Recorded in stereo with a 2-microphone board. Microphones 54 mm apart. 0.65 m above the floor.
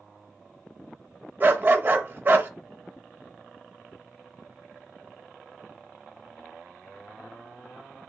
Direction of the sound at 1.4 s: 35° right (ahead or behind).